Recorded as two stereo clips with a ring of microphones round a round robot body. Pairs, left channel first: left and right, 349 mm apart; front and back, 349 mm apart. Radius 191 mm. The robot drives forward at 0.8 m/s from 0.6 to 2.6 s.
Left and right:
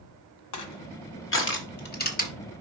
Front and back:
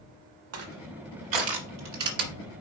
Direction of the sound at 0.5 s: 125° left.